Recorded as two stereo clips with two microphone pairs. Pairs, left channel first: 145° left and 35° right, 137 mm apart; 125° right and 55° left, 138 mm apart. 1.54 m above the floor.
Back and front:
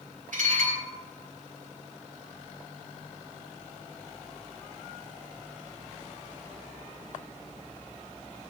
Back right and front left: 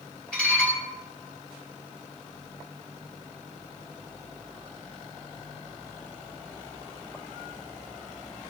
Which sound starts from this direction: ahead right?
Dishes clattering, at 0.3 s.